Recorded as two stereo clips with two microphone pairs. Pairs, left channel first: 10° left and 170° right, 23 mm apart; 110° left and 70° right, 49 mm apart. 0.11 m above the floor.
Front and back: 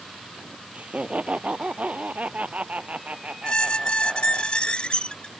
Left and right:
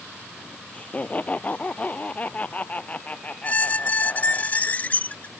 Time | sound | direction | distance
0.7 | laughter | 170° left | ?
3.4 | a squeak | 55° left | ?